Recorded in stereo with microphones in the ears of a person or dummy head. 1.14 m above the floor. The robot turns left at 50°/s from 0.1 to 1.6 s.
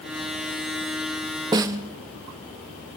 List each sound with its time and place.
1.5 s a snare drum: 20° right (ahead or behind), 0.5 m